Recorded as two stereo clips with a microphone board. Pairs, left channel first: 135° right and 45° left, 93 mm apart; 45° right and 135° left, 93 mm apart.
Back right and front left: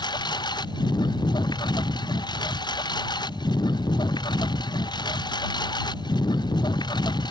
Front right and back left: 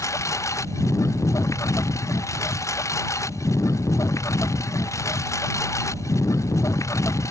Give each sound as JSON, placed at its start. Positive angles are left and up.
{"t": 0.0, "sound": "a lawn mower", "azimuth_deg": -100}